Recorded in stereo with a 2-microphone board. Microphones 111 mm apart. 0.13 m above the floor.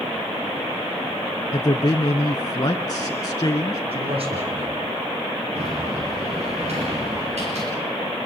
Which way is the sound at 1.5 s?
35° left (ahead or behind).